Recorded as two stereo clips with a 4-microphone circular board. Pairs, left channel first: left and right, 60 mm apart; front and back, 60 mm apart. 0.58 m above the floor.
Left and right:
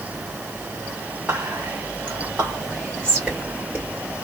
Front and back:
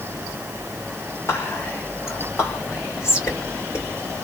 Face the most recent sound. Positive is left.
turn(degrees=-25)